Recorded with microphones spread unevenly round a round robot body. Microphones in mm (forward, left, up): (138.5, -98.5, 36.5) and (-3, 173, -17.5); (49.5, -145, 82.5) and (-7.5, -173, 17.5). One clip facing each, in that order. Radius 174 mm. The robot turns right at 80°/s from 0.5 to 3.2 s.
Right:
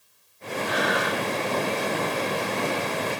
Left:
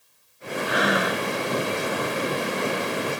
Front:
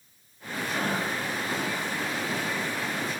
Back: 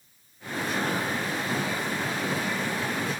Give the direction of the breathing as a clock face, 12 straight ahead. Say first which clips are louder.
Left 3 dB, back 1 dB; 9 o'clock.